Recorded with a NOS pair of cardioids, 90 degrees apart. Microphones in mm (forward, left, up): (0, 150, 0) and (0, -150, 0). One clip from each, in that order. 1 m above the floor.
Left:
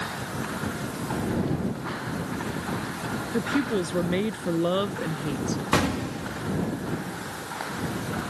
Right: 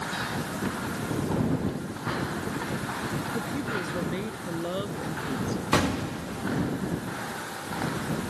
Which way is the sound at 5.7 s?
5° left.